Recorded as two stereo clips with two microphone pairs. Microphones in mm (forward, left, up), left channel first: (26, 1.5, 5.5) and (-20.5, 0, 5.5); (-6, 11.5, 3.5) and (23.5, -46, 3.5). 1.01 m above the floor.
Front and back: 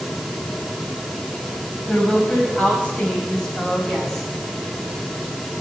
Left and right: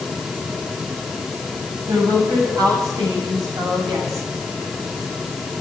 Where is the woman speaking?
60° right, 7 m; by 4.3 s 80° right, 6 m.